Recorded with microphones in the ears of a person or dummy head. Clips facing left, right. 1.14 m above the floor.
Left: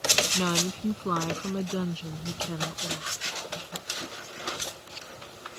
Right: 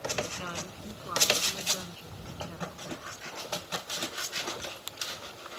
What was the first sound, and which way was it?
A woman speaking, 80° left.